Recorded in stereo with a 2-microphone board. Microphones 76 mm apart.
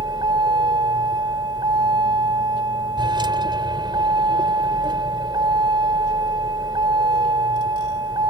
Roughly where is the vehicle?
Right.